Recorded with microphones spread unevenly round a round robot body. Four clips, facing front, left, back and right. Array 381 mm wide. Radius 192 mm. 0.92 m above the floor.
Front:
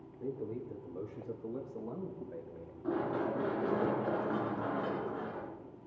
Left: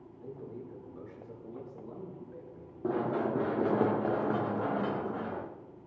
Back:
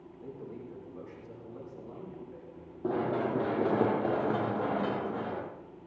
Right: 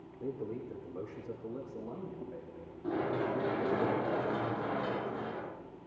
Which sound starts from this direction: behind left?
Running footsteps, at 2.8 s.